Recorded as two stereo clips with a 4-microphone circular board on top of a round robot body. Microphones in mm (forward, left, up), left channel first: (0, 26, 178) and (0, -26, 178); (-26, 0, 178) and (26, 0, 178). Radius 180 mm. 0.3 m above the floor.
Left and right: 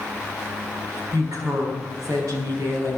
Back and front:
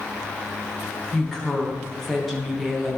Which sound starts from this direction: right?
A woman speaking, at 1.1 s.